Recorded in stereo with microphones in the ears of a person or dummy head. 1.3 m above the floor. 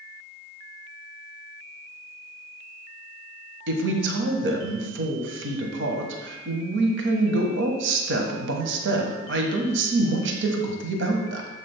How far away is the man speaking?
About 1.2 m.